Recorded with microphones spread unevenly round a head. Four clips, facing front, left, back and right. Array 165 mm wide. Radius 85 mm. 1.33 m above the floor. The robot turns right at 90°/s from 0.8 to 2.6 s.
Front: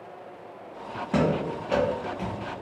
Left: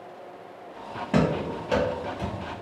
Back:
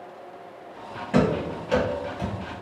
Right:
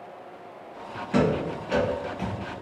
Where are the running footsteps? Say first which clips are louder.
Right 1 dB, back 2 dB; 85° left, 1.4 m; by 2.6 s 50° right, 1.5 m.